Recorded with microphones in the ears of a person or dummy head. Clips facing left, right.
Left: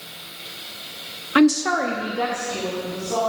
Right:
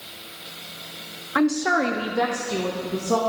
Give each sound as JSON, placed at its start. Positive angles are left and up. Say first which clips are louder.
{"t": 1.4, "sound": "a woman speaking", "louder": "left 4 dB", "side_deg": 35, "distance_m": 0.6}